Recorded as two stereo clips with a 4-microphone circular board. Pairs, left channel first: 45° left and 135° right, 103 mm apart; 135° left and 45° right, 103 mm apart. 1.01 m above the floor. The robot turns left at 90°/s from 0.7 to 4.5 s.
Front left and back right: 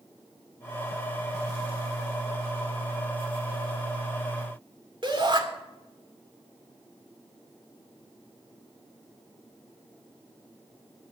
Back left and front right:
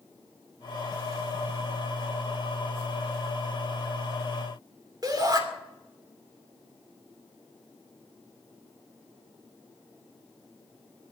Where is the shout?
95° right, 2.5 m.